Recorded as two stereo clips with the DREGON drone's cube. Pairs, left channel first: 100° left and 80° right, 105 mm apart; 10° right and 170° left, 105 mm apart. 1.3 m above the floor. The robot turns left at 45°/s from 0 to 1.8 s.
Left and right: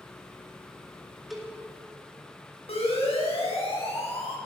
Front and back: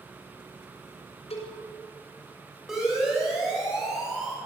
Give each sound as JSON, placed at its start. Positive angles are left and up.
{"t": 1.3, "sound": "a cowbell", "azimuth_deg": 10, "distance_m": 6.5}
{"t": 2.7, "sound": "a siren", "azimuth_deg": 85, "distance_m": 9.5}